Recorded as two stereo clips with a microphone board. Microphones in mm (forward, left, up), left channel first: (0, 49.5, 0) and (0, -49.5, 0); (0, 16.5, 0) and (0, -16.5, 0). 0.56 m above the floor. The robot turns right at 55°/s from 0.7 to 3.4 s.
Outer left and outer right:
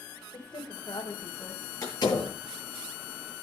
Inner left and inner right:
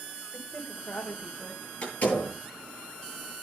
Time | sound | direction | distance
0.3 | a woman speaking | 105° left | 2.5 m
1.8 | a door slam | 35° left (ahead or behind) | 8 m